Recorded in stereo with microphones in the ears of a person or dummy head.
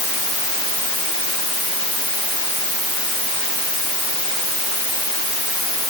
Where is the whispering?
No whispering in this recording.